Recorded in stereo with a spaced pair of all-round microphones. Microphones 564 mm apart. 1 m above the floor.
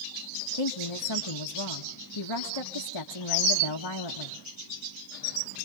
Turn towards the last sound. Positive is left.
turn(degrees=55)  # may be behind; listen again after turning